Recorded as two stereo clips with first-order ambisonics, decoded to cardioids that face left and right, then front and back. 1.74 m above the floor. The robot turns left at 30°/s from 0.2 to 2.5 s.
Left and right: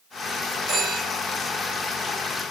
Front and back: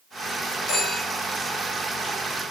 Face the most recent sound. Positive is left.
turn(degrees=-85)